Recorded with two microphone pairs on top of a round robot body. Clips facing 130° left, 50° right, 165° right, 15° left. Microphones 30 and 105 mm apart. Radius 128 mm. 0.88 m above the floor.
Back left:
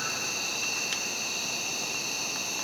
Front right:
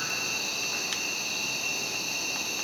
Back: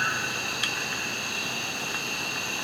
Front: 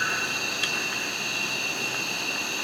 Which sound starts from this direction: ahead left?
An insect, at 0.0 s.